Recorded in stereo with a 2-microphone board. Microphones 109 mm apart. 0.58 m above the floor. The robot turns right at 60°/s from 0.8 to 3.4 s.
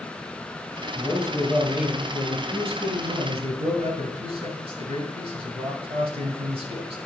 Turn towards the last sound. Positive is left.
turn(degrees=-65)